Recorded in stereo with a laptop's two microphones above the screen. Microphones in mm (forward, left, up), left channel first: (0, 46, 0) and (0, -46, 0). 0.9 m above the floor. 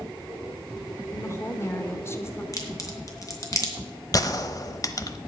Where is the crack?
40° left (ahead or behind), 2.5 m.